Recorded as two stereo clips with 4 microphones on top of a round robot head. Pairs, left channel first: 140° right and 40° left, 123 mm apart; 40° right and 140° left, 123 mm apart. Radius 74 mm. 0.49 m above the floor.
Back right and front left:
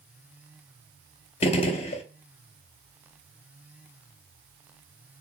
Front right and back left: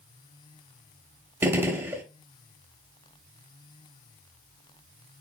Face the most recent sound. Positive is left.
turn(degrees=-155)